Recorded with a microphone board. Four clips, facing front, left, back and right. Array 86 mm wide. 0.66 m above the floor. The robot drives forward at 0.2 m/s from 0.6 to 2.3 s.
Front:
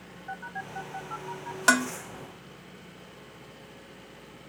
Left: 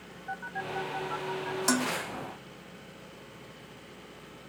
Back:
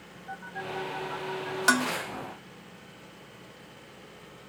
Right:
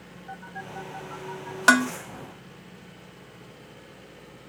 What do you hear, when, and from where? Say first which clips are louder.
0.3 s a phone buzzing: left 3 dB, back 1 dB; 70° left, 1.1 m; by 1.6 s 100° left, 1.1 m
1.7 s dishes clattering: right 10 dB, front 2 dB; 85° right, 0.6 m; by 1.9 s 90° right, 0.6 m